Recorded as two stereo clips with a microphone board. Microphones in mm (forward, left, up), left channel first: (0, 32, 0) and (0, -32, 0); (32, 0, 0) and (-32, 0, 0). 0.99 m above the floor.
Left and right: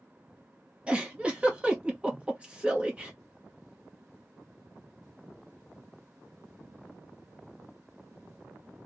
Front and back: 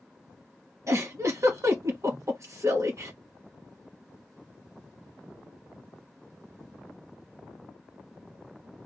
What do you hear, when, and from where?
0.9 s a giggle: 155° right, 0.9 m